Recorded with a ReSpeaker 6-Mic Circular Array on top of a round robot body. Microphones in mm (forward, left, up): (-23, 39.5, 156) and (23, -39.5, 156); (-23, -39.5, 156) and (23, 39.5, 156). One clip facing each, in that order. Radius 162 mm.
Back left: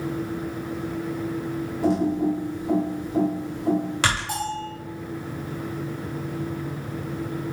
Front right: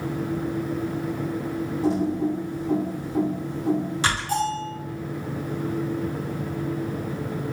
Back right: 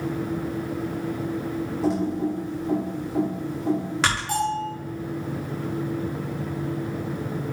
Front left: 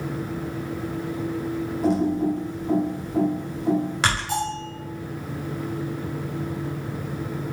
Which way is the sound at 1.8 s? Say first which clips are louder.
Back left 2 dB, front left 3 dB; 150° left.